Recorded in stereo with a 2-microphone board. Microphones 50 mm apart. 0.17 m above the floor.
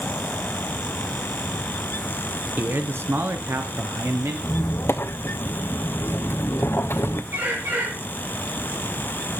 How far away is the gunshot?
I don't hear a gunshot.